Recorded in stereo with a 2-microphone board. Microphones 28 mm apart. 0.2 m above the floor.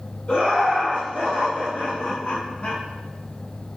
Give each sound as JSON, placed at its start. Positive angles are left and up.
{"t": 0.3, "sound": "laughter", "side_deg": 45, "distance_m": 1.8}